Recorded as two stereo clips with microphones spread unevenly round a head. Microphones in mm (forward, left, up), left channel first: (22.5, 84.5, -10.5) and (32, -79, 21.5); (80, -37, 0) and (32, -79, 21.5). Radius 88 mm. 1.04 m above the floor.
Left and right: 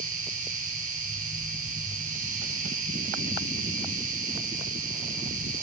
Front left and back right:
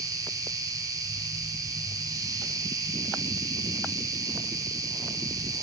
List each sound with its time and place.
0.0 s an insect: 130° right, 4.5 m